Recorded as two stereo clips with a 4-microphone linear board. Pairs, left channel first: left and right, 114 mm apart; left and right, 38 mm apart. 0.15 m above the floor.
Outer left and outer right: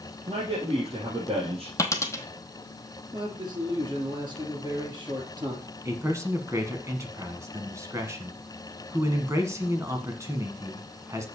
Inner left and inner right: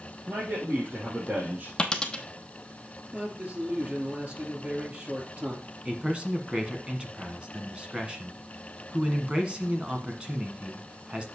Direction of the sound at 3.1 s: 40° right (ahead or behind).